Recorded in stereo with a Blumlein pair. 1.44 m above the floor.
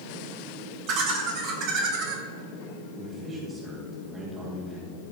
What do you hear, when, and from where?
0.9 s laughter: 40° right, 4.5 m; by 2.2 s 45° right, 3.5 m
3.0 s a man speaking: 20° right, 3 m